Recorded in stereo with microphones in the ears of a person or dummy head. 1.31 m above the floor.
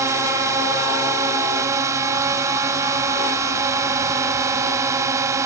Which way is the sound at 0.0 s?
20° right (ahead or behind).